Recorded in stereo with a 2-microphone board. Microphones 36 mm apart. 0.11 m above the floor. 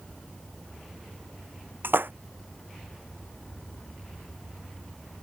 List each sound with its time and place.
1.8 s a splash: 80° right